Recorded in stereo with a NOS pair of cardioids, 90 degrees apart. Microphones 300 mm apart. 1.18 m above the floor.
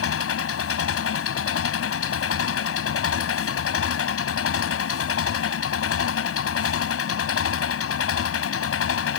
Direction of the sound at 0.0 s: 50° left.